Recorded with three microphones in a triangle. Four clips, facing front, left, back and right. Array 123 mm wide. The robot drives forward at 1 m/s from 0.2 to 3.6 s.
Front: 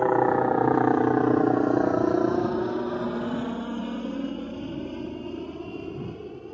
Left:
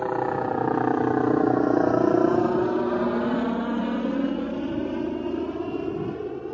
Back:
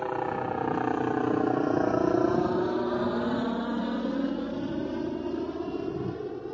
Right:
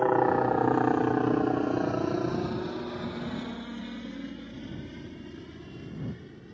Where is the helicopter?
15° right; by 6.5 s 110° left.